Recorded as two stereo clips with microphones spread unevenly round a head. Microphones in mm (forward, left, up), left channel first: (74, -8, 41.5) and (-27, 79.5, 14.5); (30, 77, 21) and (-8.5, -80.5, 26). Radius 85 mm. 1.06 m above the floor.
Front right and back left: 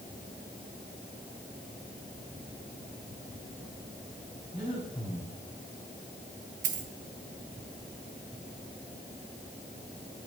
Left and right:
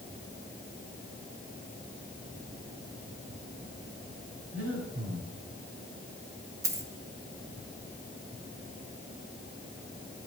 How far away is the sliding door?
I don't hear a sliding door.